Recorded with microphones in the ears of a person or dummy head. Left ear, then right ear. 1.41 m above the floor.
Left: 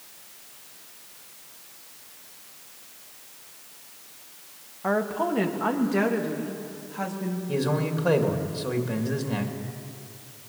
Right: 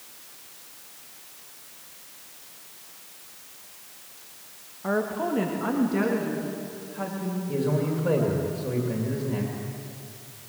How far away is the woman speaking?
About 1.8 m.